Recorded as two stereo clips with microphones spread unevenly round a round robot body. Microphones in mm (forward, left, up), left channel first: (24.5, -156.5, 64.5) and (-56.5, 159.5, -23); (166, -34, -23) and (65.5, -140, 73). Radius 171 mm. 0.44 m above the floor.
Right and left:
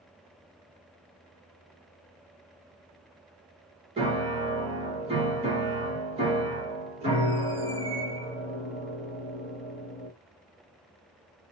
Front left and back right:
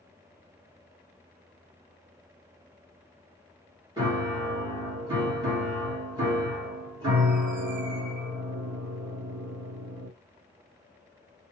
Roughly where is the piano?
Behind left.